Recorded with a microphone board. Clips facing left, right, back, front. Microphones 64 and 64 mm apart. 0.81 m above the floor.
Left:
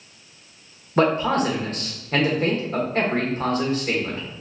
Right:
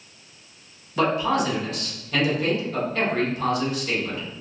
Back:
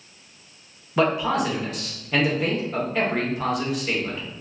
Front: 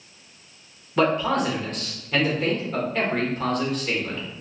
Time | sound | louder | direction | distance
1.0 | a man speaking | left 2 dB, even | 100° left | 1.1 m